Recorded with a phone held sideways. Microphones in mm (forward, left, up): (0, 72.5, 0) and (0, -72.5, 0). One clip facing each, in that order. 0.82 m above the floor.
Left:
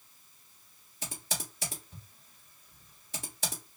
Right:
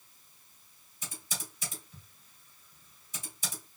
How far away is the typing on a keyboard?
About 1.5 m.